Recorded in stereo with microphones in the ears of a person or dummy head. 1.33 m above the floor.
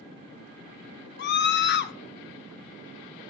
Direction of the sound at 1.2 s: 60° left (ahead or behind).